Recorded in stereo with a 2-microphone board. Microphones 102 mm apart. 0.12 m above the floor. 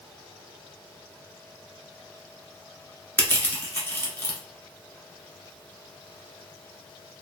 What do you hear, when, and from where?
3.2 s crushing: 20° left (ahead or behind), 1.2 m